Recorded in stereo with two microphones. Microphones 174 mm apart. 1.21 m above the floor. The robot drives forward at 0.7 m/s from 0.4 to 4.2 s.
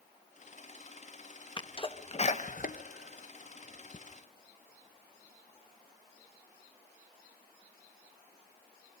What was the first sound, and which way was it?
A sneeze, 30° left (ahead or behind).